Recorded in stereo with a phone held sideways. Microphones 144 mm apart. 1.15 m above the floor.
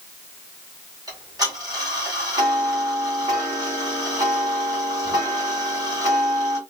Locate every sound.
1.1 s ticking: 25° right (ahead or behind), 2.5 m